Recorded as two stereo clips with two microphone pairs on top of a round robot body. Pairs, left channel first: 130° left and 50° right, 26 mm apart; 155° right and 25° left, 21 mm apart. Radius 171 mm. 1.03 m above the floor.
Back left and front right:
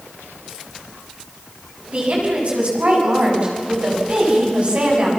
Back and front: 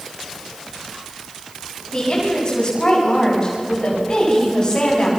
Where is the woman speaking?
95° right, 8 m.